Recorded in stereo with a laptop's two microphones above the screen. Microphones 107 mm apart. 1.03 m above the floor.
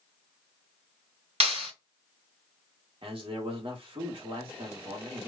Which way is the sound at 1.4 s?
75° right (ahead or behind).